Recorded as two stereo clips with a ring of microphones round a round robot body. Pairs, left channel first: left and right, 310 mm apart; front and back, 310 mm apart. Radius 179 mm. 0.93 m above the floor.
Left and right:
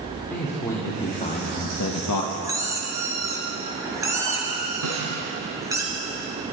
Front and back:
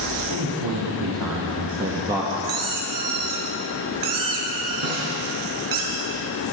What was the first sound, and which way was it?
A man speaking, 175° left.